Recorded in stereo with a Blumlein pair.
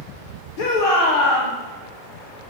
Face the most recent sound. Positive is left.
turn(degrees=45)